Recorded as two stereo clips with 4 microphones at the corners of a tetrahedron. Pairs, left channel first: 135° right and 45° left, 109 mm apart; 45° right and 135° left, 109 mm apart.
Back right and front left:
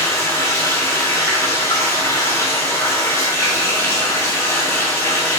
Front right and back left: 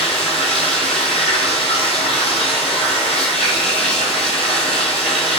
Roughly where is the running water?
Right.